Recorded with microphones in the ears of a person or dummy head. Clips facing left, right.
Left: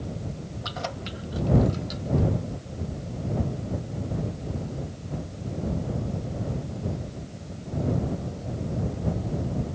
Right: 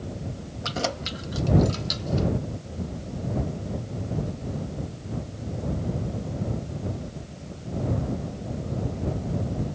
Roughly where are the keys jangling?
Right.